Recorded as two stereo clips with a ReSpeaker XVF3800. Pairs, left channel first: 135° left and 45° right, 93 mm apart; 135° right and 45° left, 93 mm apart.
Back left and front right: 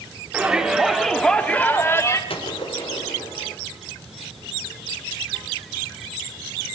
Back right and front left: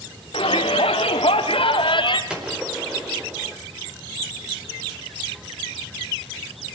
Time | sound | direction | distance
0.3 | a shout | 125° right | 3.5 m
2.3 | a gunshot | 125° left | 5 m